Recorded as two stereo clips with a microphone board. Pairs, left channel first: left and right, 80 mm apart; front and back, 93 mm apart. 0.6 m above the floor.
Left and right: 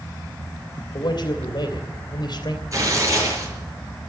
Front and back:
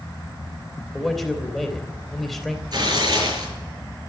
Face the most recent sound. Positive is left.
turn(degrees=-135)